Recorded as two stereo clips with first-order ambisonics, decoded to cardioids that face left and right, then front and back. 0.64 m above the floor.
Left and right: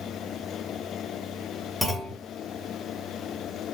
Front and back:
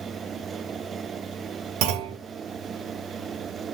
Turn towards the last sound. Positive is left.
turn(degrees=180)